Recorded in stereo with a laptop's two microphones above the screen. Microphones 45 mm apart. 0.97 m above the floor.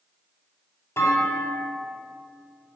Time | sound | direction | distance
1.0 | a clunk | 80° left | 2.5 m